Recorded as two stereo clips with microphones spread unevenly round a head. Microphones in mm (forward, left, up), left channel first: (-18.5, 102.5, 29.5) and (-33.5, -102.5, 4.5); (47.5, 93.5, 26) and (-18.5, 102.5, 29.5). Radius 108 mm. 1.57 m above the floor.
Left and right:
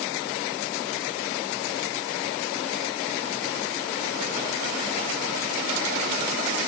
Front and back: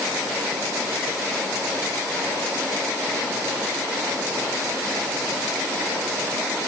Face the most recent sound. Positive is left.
No sound to turn to.